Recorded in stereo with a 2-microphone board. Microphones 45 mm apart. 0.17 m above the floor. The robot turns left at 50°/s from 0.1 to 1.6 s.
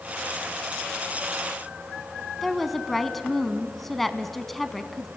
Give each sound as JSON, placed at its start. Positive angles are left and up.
{"t": 2.4, "sound": "a woman speaking", "side_deg": 5, "distance_m": 1.1}